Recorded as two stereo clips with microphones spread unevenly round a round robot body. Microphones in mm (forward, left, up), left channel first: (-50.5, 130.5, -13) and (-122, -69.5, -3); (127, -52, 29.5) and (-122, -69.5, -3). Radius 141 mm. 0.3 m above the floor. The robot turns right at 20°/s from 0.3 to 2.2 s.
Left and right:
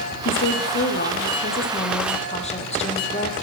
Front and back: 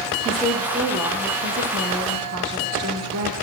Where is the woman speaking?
90° left, 9 m; by 3.3 s 130° left, 9 m.